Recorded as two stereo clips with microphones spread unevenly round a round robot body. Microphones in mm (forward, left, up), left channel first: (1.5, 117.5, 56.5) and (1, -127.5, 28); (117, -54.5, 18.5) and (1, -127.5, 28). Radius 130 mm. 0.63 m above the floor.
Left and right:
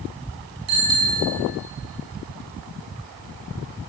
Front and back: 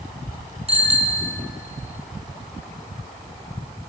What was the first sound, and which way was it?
A bicycle bell, 105° right.